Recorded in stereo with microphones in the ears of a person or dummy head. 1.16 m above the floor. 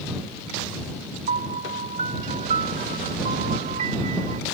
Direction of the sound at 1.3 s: 40° right (ahead or behind).